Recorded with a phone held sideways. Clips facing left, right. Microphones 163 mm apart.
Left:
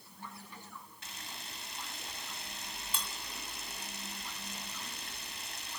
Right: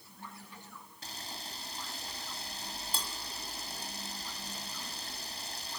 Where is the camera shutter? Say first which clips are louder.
Right 7 dB; 35° right (ahead or behind), 2 m.